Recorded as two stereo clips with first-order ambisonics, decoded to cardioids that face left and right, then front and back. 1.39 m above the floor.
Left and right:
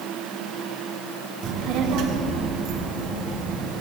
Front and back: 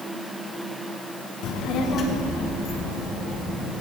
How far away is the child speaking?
About 0.8 m.